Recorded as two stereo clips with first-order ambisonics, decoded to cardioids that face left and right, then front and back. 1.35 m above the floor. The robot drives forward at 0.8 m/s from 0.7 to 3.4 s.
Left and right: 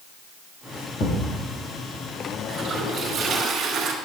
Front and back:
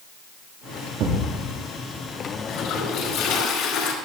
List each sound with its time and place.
1.0 s a thud: 145° left, 4 m; by 1.3 s 150° left, 4 m
2.5 s a toilet flushing: 25° right, 3.5 m; by 3.9 s 35° right, 2.5 m